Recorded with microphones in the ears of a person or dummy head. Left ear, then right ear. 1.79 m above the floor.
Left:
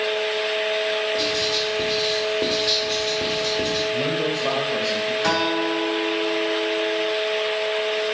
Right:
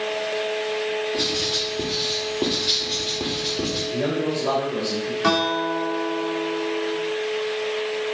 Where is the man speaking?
15° left (ahead or behind), 2 m.